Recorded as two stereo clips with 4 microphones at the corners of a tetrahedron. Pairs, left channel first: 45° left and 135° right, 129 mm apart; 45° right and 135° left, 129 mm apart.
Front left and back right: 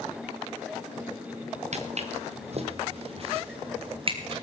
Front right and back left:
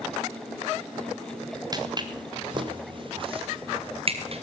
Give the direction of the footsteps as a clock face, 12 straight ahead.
6 o'clock.